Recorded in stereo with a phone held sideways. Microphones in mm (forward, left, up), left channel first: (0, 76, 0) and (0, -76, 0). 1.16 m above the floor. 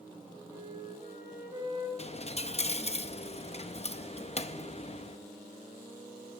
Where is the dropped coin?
40° left (ahead or behind), 0.5 m.